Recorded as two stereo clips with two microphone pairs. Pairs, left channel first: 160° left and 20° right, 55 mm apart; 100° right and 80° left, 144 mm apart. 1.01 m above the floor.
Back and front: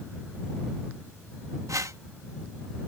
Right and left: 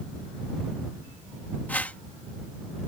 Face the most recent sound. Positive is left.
turn(degrees=-20)